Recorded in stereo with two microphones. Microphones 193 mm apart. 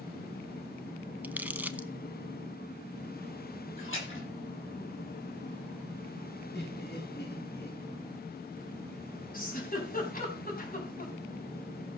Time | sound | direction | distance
1.2 | crumpling | 10° right (ahead or behind) | 0.7 m
3.8 | a splash | 90° left | 9.5 m
6.5 | laughter | 65° left (ahead or behind) | 5.5 m
9.3 | a giggle | 45° left (ahead or behind) | 4 m